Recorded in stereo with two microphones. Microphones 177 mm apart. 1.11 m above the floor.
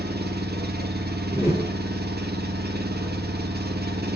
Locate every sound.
0.0 s an engine running: 65° right (ahead or behind), 0.7 m
1.3 s a whoosh: 35° right (ahead or behind), 2 m